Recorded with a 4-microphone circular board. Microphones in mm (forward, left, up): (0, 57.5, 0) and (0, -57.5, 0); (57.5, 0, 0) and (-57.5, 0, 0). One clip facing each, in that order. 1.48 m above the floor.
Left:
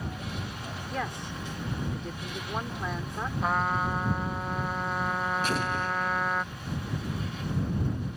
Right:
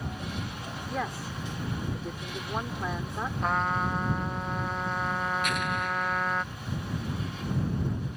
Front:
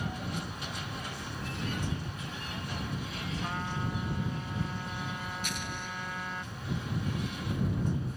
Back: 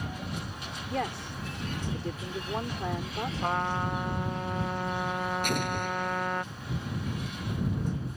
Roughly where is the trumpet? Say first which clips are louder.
Left 1 dB, back 7 dB; behind.